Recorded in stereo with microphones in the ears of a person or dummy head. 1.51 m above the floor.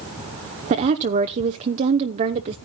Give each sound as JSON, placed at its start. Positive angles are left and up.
{"t": 0.7, "sound": "a woman speaking", "side_deg": -35, "distance_m": 0.7}